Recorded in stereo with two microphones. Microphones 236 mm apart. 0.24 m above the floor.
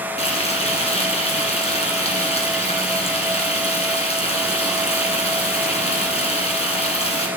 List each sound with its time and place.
0.2 s frying: 25° left (ahead or behind), 1.9 m